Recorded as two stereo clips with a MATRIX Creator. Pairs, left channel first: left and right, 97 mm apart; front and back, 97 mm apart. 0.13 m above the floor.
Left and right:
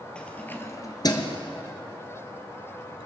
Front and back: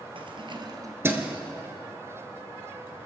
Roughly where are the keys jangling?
Behind.